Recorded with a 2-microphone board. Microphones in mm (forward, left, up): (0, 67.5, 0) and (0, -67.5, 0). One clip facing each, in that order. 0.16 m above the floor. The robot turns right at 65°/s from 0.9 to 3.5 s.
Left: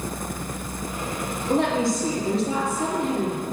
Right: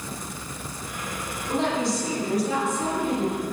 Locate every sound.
1.5 s a woman speaking: 90° left, 3 m; by 3.4 s 145° right, 3 m